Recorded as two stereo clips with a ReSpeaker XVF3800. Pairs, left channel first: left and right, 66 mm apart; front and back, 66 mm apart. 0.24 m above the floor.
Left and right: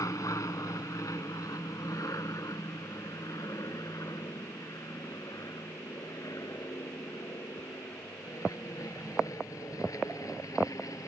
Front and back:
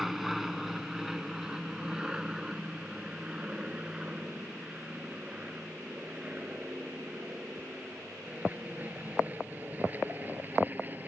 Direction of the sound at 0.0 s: 95° left.